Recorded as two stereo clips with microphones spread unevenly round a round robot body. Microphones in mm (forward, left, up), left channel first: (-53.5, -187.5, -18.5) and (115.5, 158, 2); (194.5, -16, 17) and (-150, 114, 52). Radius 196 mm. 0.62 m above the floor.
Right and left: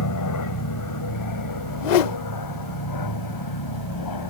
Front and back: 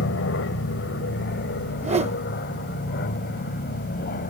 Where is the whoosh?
125° right.